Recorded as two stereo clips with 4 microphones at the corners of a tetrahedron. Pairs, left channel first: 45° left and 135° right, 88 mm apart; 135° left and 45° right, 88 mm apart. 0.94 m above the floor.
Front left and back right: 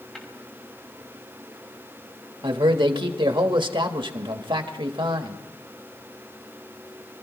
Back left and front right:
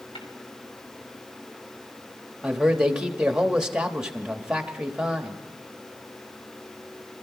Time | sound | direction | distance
0.1 | tapping | 130° left | 3 m
2.4 | a man speaking | 125° right | 1.4 m